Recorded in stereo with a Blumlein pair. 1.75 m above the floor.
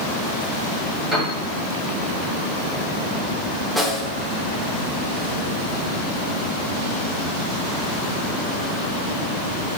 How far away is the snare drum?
About 0.5 m.